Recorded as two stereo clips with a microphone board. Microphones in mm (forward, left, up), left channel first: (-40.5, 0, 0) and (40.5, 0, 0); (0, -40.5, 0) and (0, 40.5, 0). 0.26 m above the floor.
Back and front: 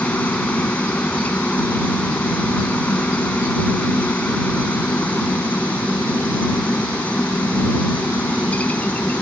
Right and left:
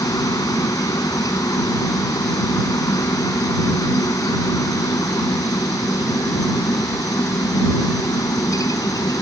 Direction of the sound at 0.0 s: 115° right.